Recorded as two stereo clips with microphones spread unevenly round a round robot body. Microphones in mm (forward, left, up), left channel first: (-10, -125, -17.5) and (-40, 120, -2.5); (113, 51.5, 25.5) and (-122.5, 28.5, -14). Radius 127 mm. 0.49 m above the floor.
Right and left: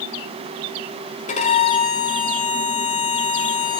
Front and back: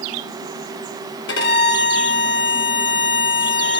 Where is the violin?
35° right, 1.8 m.